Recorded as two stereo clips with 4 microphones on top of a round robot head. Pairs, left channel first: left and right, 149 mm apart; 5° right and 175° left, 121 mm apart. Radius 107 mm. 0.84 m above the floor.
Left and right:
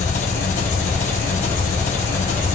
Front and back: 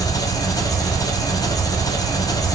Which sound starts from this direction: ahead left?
An engine running, at 0.0 s.